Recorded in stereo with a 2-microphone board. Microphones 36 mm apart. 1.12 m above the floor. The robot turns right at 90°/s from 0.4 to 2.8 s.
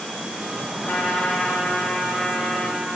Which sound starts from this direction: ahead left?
A trumpet, at 0.8 s.